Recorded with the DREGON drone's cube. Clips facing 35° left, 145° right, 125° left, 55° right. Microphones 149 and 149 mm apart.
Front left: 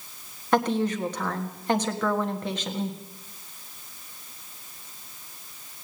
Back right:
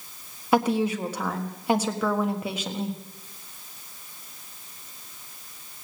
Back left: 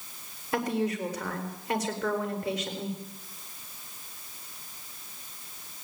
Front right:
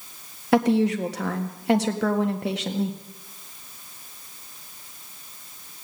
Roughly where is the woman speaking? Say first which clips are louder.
Back right 1 dB, front right 9 dB; ahead right.